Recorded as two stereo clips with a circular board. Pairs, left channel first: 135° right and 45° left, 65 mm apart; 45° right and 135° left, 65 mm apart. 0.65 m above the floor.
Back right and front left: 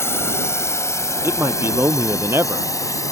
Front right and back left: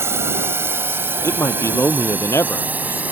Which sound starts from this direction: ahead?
A man speaking, at 1.2 s.